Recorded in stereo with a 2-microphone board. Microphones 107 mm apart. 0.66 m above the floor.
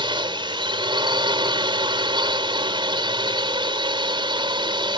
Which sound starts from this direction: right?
A drone, at 0.0 s.